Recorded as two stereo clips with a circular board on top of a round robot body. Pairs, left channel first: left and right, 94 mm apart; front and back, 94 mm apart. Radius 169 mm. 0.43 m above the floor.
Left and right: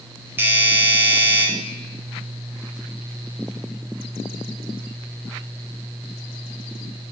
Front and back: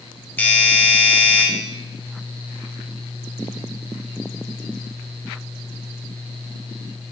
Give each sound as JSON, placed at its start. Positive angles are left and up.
{"t": 0.4, "sound": "a doorbell", "azimuth_deg": -50, "distance_m": 1.7}